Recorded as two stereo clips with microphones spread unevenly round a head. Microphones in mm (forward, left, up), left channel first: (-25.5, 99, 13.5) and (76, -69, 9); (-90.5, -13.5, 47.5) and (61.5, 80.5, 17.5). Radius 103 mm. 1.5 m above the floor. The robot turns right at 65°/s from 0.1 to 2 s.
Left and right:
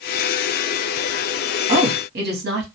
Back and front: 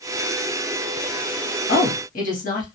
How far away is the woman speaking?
About 0.9 m.